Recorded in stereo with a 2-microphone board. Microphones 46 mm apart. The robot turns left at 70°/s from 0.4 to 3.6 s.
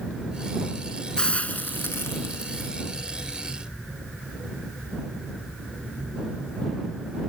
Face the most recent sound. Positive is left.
turn(degrees=-10)